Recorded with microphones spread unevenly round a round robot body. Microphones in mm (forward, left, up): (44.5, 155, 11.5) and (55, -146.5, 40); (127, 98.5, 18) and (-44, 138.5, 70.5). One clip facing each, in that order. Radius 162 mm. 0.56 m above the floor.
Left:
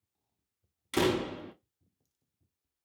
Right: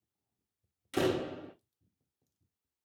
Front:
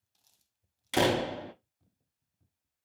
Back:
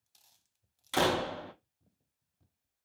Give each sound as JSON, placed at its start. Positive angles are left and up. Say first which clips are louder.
{"t": 0.9, "sound": "a door slam", "louder": "left 2 dB, front 3 dB", "azimuth_deg": 25, "distance_m": 0.5}